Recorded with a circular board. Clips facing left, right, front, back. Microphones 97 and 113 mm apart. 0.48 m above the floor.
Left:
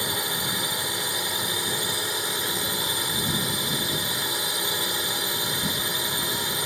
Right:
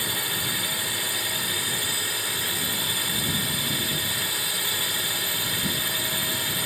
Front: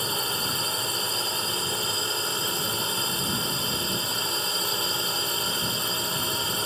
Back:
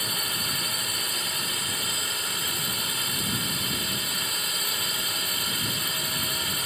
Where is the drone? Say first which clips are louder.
Left 2 dB, front 4 dB; 35° left.